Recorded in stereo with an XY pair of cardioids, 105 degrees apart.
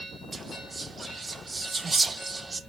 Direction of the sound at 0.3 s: 25° right.